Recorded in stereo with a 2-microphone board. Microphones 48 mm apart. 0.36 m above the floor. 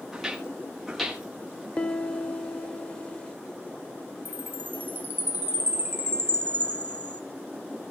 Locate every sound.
0.1 s footsteps: 5° right (ahead or behind), 7 m; by 1.7 s 5° left (ahead or behind), 7.5 m
1.8 s a piano: 25° left (ahead or behind), 0.6 m
4.2 s a chime: 40° right (ahead or behind), 1.1 m